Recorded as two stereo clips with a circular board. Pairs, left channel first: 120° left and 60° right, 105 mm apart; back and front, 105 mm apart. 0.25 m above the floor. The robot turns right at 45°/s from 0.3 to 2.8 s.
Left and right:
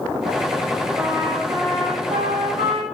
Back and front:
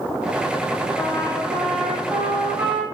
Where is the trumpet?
130° right, 7 m; by 2.8 s 45° right, 7 m.